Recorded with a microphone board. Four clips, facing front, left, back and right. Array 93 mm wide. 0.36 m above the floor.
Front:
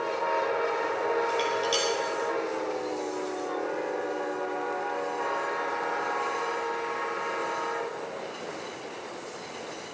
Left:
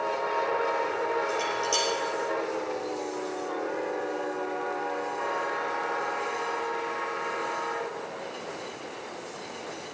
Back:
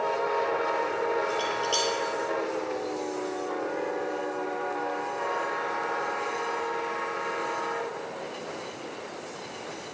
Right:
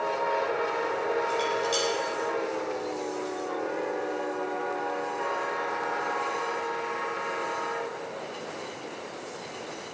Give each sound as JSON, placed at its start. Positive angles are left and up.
{"t": 1.3, "sound": "dishes clattering", "azimuth_deg": 20, "distance_m": 5.0}